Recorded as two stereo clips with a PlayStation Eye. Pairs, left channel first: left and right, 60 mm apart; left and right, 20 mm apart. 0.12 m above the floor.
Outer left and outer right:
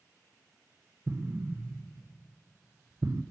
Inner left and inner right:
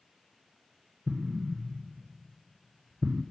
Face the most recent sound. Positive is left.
turn(degrees=-60)  # may be behind; listen again after turning